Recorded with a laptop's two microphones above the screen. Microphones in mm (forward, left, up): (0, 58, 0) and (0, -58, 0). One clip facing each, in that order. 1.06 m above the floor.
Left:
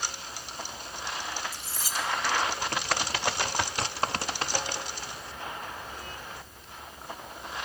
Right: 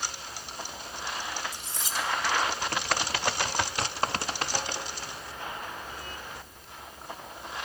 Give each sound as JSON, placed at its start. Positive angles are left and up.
{"t": 1.5, "sound": "cutlery clinking", "side_deg": -20, "distance_m": 1.6}